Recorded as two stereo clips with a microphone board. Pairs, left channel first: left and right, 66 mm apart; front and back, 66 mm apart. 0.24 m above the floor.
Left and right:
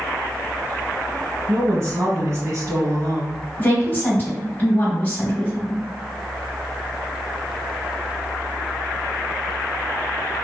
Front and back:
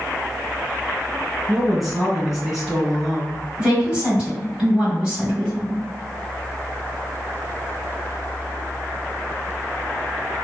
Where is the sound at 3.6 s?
120° left, 1.1 m.